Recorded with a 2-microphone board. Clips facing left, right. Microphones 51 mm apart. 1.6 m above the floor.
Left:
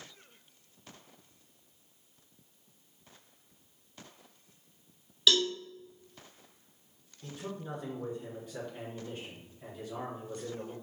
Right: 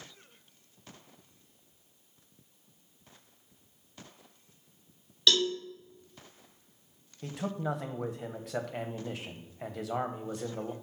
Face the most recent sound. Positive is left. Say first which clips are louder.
# right 7 dB
turn(degrees=-75)  # may be behind; listen again after turning